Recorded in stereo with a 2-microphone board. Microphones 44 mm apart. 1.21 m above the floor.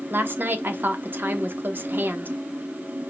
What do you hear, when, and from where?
0.1 s a woman speaking: 55° right (ahead or behind), 0.9 m